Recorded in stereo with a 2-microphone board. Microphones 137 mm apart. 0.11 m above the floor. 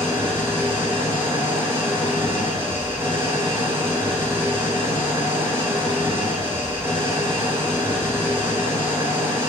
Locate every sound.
0.0 s an engine running: 20° right (ahead or behind), 3 m